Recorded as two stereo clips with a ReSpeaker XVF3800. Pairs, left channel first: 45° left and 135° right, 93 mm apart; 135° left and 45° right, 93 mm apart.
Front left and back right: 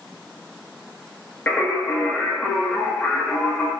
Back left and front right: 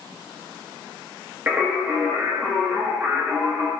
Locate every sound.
1.5 s singing: straight ahead, 0.9 m